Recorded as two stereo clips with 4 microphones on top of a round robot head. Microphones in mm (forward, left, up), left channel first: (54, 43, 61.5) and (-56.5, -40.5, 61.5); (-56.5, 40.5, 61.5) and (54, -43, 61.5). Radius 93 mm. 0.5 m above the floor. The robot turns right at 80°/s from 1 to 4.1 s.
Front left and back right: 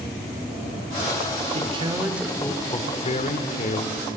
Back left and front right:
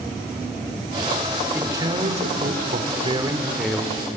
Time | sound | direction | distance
1.6 | a man speaking | 115° right | 2.0 m